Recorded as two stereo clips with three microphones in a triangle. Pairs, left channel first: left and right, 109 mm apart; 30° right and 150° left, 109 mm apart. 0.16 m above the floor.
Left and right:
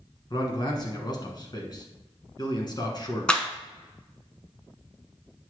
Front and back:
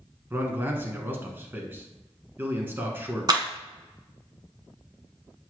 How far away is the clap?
About 1.0 m.